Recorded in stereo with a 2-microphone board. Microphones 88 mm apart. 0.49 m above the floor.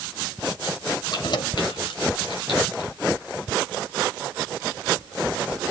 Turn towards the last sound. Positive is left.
turn(degrees=70)  # may be behind; listen again after turning